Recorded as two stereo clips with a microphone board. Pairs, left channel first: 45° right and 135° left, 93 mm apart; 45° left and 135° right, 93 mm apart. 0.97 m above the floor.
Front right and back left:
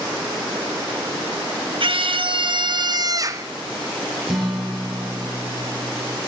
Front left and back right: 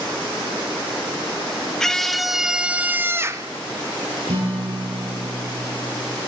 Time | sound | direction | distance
1.8 | a scream | 130° left | 1.4 m
4.3 | a guitar | 135° right | 8.5 m